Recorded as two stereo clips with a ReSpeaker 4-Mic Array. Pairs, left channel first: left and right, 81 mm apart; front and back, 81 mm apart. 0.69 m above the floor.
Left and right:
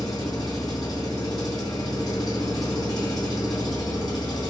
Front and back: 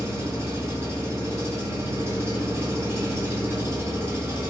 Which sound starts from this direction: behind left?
An engine running, at 0.0 s.